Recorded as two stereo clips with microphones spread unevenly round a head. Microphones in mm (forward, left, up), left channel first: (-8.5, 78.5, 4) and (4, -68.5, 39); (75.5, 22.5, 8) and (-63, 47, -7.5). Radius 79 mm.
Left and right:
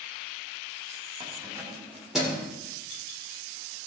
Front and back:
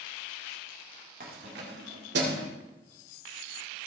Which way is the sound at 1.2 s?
150° right.